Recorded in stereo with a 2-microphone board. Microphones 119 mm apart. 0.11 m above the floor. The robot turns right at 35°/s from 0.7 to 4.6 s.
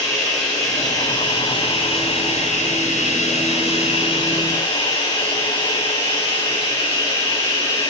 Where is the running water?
20° left, 6.5 m; by 7.9 s 155° left, 6.5 m.